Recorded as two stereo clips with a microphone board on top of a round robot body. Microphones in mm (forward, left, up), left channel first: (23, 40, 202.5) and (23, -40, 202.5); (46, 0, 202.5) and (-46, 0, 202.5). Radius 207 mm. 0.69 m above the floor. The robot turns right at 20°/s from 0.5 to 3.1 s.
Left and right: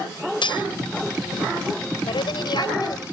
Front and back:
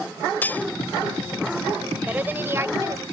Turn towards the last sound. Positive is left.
turn(degrees=125)